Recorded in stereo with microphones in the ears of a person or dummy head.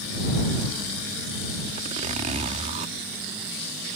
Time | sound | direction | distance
1.8 | a zipper | 35° right (ahead or behind) | ?